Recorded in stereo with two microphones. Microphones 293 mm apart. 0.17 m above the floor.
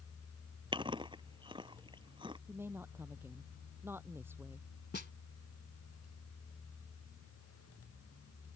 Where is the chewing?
15° right (ahead or behind).